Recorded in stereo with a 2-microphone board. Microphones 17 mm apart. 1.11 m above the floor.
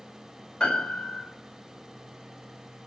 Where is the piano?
75° left (ahead or behind), 5.5 m.